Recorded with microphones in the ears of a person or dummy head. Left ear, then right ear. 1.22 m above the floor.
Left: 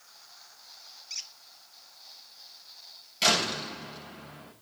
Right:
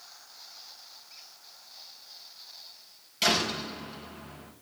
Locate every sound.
1.1 s a squeak: 80° left, 1.3 m
3.2 s a door slam: 20° left (ahead or behind), 6 m